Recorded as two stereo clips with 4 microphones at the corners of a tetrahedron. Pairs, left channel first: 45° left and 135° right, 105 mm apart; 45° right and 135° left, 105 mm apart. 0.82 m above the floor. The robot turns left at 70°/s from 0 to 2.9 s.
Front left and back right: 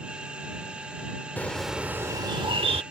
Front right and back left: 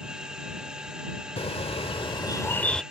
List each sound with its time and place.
1.4 s a bird: 25° right; by 2.8 s 130° right